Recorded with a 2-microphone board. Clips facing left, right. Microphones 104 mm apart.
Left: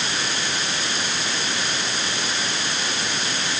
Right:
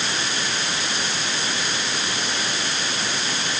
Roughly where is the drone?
I don't hear a drone.